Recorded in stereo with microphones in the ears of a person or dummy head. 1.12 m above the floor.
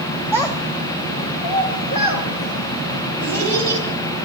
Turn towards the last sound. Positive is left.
turn(degrees=60)  # may be behind; listen again after turning